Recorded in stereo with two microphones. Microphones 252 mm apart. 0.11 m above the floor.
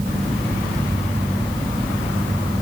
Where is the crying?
I don't hear crying.